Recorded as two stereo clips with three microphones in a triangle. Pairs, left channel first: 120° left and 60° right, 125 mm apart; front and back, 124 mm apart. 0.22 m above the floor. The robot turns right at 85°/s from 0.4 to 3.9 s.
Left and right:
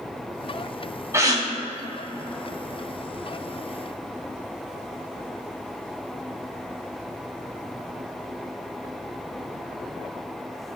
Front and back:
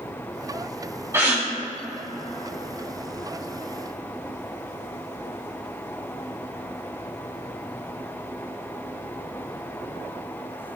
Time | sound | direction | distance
1.1 | a gasp | 120° right | 2 m